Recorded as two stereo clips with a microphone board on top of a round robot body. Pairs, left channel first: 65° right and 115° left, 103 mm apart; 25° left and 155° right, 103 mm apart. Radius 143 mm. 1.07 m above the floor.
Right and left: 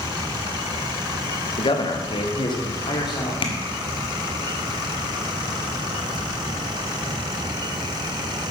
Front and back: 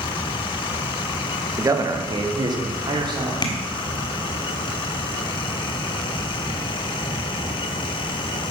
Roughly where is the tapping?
Ahead right.